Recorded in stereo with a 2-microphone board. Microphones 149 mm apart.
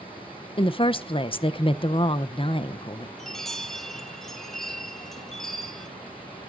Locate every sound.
0.6 s a woman speaking: 35° left (ahead or behind), 0.5 m
3.2 s a chime: 5° left (ahead or behind), 1.5 m